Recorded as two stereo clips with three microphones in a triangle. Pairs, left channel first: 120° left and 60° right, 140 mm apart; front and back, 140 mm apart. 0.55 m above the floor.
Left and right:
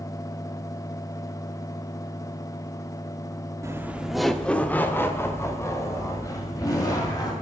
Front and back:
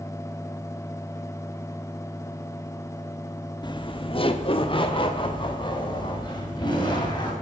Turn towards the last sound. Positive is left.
turn(degrees=55)